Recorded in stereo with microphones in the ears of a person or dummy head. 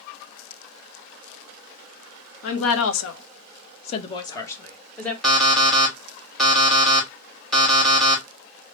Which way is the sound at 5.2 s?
Centre (ahead or behind).